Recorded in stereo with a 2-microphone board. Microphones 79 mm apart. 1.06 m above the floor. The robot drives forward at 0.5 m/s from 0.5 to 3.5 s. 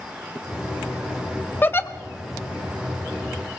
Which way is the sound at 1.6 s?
25° left (ahead or behind).